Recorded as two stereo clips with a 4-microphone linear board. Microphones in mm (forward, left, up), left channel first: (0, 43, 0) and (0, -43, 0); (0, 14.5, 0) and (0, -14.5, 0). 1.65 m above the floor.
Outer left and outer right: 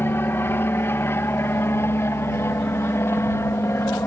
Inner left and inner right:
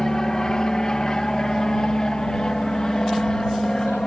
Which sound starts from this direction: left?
An aircraft, at 0.0 s.